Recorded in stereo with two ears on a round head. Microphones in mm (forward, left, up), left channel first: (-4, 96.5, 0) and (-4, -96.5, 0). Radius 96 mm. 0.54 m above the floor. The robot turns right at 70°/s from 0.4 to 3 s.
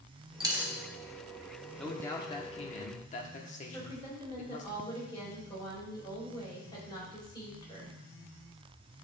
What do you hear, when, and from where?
0.4 s a dropped coin: 25° right (ahead or behind), 1.0 m; by 0.7 s centre (ahead or behind), 1.0 m
1.8 s a man speaking: 5° left, 1.0 m; by 4.7 s 90° left, 1.0 m
3.7 s a woman speaking: 20° left (ahead or behind), 2.5 m